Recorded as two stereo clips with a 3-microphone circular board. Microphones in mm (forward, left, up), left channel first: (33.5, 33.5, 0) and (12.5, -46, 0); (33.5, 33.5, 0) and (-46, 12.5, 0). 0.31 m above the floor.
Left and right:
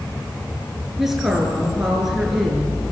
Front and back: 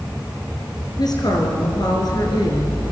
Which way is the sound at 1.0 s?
20° right.